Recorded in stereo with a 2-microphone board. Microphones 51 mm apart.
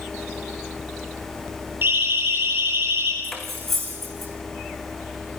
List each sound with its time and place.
1.8 s a siren: 50° right (ahead or behind), 9 m; by 3.1 s 60° right (ahead or behind), 8.5 m
3.2 s cutlery clinking: 5° left (ahead or behind), 5 m